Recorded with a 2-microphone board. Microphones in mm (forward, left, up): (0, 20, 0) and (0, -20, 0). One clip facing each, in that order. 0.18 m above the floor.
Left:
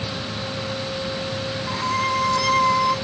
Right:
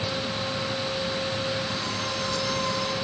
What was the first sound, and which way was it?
A violin, 85° left.